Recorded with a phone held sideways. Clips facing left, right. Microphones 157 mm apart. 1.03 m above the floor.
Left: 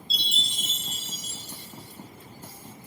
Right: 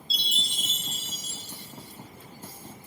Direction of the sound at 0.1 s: 60° right (ahead or behind).